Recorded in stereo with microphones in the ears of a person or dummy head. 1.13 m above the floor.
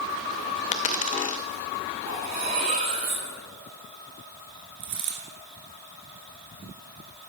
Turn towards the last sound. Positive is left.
turn(degrees=-35)  # may be behind; listen again after turning